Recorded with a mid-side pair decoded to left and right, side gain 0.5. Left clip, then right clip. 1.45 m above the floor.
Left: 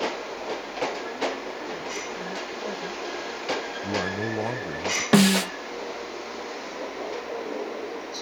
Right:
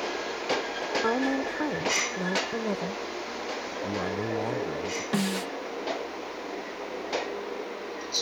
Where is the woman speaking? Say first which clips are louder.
Right 3 dB; 70° right; by 3.7 s 50° right.